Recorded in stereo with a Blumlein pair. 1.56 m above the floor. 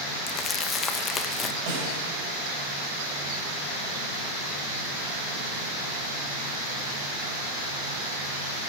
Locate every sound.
0.3 s crumpling: 25° left, 0.5 m
1.7 s a snare drum: 50° right, 3.5 m